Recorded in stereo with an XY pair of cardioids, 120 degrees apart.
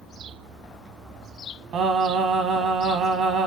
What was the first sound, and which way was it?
Singing, 60° right.